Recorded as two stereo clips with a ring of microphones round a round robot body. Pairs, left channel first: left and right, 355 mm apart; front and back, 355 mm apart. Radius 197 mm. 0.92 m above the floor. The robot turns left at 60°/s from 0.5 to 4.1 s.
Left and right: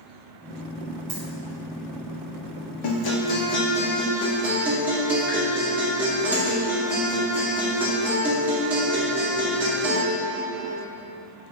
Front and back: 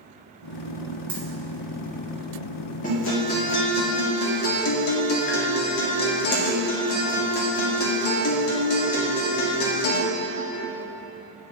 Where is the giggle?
No giggle in this recording.